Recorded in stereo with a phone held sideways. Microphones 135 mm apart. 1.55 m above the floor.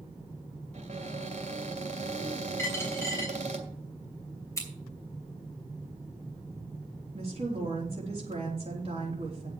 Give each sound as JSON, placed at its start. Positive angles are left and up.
{"t": 0.7, "sound": "a cupboard door", "side_deg": -55, "distance_m": 2.0}
{"t": 2.6, "sound": "a dropped coin", "side_deg": 20, "distance_m": 4.0}
{"t": 4.6, "sound": "scissors", "side_deg": 25, "distance_m": 3.0}
{"t": 7.1, "sound": "a woman speaking", "side_deg": -50, "distance_m": 3.5}